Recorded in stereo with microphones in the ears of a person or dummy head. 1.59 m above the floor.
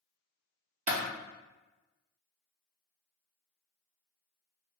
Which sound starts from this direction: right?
A clap, at 0.9 s.